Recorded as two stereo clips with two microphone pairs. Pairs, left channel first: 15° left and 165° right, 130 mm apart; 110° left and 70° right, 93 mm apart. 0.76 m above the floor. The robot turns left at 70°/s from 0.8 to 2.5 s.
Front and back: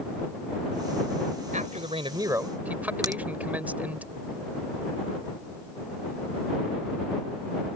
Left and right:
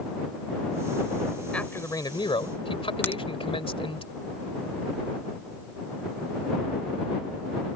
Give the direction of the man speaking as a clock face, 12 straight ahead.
6 o'clock.